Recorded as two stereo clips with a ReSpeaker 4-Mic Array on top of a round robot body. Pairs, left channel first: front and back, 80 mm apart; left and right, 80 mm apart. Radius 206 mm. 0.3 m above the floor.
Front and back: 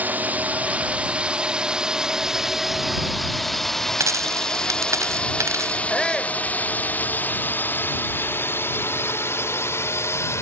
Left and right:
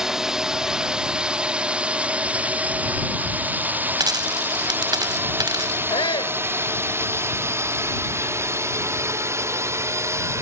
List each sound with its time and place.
0.0 s a drone: 165° right; by 10.4 s 45° right
4.0 s a dropped coin: 125° right
5.9 s a shout: 85° left